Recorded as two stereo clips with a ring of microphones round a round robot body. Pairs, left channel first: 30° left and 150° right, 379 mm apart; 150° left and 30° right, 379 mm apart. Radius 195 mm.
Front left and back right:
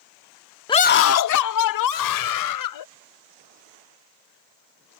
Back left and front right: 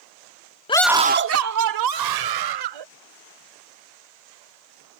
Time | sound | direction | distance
0.7 | a scream | 95° left | ?